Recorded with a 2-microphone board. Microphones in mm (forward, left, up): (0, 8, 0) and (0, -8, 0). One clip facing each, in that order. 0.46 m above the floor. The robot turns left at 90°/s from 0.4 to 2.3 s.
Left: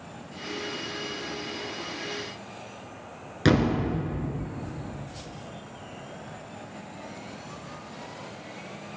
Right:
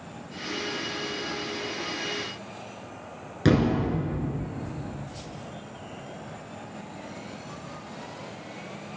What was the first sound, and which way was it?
A thud, 20° left (ahead or behind).